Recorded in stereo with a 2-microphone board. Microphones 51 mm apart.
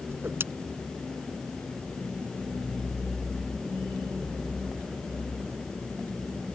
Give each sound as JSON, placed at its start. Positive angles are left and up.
{"t": 0.1, "sound": "a whoosh", "side_deg": -55}